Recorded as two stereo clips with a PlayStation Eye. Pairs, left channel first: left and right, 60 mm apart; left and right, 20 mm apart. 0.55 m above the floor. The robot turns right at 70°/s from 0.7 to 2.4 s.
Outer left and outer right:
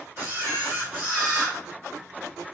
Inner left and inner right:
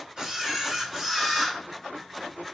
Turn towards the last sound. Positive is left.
turn(degrees=60)